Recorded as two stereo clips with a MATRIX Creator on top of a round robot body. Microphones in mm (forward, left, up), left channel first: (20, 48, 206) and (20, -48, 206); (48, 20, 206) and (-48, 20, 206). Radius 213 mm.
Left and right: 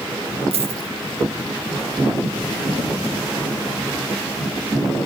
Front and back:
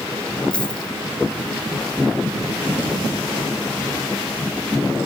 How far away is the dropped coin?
About 1.1 m.